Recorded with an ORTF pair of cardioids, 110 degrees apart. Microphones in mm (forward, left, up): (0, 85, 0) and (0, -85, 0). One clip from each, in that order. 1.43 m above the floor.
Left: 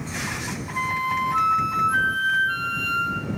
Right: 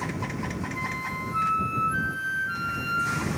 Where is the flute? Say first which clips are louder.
Left 10 dB; 35° left.